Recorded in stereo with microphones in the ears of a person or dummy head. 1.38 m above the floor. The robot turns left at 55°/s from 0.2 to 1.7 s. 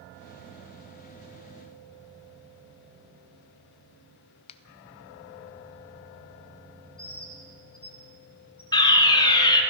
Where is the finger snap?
35° left (ahead or behind), 0.6 m.